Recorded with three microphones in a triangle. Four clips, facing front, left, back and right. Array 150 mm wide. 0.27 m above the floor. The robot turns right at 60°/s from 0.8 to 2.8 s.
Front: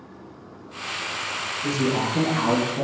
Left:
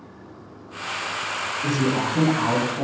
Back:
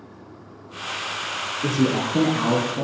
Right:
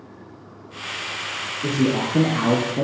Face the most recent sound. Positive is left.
turn(degrees=-95)